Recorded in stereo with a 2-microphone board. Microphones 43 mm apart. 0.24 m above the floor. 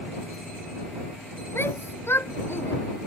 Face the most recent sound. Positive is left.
turn(degrees=65)  # may be behind; listen again after turning